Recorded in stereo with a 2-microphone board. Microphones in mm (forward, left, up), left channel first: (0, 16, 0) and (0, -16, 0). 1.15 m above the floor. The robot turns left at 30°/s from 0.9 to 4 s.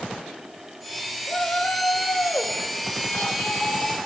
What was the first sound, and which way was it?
A shout, 150° left.